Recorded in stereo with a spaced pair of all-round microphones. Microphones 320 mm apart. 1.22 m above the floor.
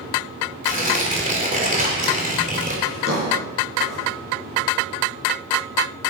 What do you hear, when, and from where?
0.6 s tearing paper: 25° right (ahead or behind), 2.5 m
2.9 s a drawer: 40° right (ahead or behind), 5.5 m